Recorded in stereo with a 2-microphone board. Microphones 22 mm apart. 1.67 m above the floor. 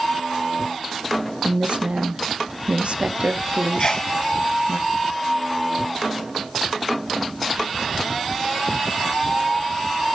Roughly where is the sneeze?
Left.